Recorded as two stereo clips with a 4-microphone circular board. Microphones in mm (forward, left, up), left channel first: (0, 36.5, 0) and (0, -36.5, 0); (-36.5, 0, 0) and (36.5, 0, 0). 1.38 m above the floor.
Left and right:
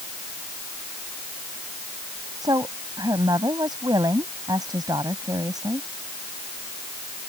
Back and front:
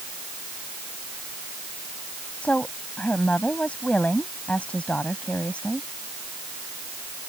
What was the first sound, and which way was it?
A woman speaking, 110° right.